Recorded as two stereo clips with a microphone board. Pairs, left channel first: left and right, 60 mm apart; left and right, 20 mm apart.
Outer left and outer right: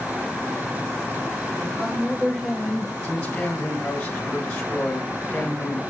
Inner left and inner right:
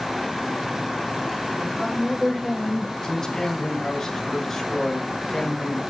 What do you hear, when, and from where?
1.6 s a woman speaking: 15° right (ahead or behind), 2 m; by 2.9 s centre (ahead or behind), 1.3 m
3.0 s a man speaking: 15° left (ahead or behind), 1.8 m